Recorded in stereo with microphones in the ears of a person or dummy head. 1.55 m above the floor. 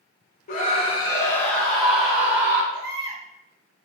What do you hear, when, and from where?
0.5 s a scream: 55° left (ahead or behind), 0.6 m; by 2.6 s 5° right (ahead or behind), 1.2 m
2.7 s a baby crying: 15° right (ahead or behind), 1.0 m